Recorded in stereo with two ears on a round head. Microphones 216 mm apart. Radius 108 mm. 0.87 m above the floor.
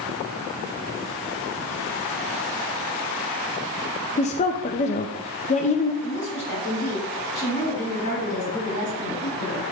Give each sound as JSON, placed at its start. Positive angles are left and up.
{"t": 4.2, "sound": "a woman speaking", "side_deg": 30, "distance_m": 0.6}
{"t": 6.0, "sound": "a woman speaking", "side_deg": 70, "distance_m": 4.0}